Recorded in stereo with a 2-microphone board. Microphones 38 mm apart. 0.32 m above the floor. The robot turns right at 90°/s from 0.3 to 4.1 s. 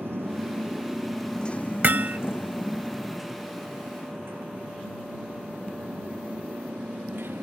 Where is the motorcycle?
80° right; by 7.4 s 85° right.